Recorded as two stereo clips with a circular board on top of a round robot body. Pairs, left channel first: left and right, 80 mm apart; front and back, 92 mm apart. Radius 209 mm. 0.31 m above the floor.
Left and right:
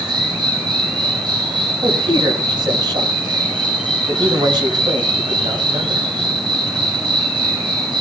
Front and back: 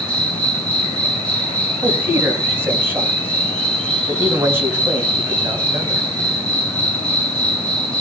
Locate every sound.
0.0 s an insect: 80° right, 5.5 m
1.8 s a man speaking: 115° right, 4 m